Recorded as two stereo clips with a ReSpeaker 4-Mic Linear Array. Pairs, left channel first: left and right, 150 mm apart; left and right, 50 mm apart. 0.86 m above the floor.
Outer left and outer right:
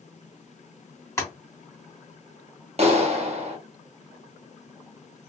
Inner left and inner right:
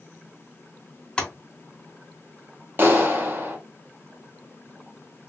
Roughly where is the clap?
Right.